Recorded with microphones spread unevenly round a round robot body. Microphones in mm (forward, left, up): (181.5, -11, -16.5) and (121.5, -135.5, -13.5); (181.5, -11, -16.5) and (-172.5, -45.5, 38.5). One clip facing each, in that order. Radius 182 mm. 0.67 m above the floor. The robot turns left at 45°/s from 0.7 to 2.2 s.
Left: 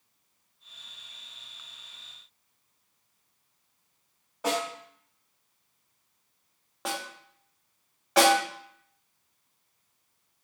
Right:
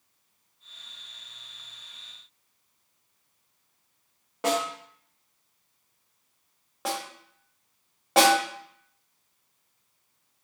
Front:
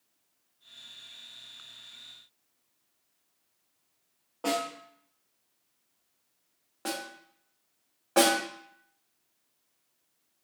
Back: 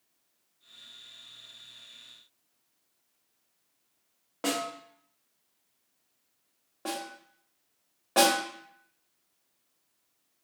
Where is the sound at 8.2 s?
85° right, 2 m.